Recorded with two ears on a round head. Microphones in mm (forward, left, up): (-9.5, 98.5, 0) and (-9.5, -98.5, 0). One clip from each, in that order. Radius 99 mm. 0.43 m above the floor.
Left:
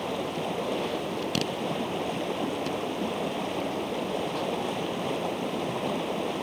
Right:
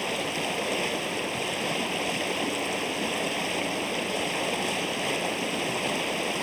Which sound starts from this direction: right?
Running water, at 0.0 s.